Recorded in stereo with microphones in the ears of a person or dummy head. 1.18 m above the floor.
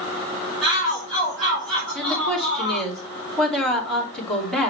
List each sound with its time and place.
0.6 s a shout: 5° left (ahead or behind), 3 m
1.9 s a woman speaking: 5° left (ahead or behind), 2 m